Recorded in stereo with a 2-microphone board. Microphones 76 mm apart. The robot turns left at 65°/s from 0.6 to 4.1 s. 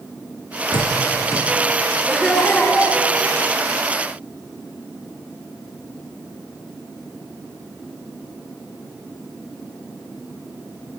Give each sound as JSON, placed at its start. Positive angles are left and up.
{"t": 0.7, "sound": "a door slam", "side_deg": 70, "distance_m": 4.0}
{"t": 2.1, "sound": "laughter", "azimuth_deg": -160, "distance_m": 5.0}